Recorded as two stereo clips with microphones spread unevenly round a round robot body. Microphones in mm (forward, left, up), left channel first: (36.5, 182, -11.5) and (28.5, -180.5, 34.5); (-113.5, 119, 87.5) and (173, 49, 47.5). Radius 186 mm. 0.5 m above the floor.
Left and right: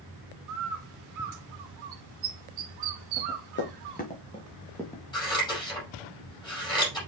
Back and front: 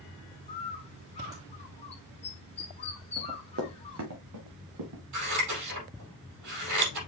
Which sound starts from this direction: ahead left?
Running footsteps, at 3.2 s.